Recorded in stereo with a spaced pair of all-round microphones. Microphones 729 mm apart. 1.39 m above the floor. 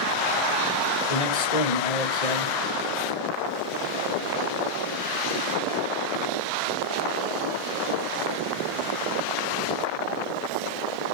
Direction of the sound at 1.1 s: 65° left (ahead or behind).